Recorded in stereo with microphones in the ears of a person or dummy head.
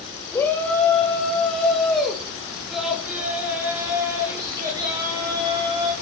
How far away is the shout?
About 7 m.